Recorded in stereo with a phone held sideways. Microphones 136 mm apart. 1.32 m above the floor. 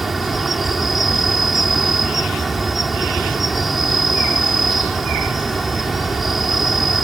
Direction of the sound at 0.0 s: Centre (ahead or behind).